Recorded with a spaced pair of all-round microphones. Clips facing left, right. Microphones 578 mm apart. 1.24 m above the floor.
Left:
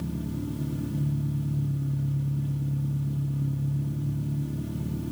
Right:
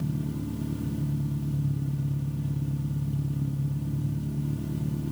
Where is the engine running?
20° right (ahead or behind), 3.5 m.